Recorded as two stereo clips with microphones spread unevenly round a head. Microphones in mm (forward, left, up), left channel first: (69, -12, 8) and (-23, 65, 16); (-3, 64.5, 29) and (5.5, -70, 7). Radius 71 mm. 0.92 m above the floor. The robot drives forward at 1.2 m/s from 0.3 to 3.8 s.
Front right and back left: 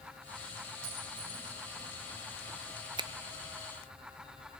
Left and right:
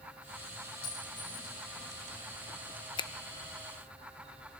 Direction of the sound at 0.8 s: 150° left.